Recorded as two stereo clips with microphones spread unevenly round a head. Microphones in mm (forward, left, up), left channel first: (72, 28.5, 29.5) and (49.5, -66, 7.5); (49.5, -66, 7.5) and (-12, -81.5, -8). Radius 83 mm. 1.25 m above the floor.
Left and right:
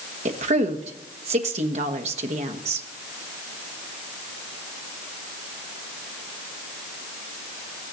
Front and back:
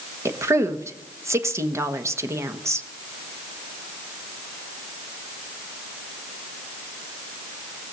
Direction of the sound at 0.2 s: 120° right.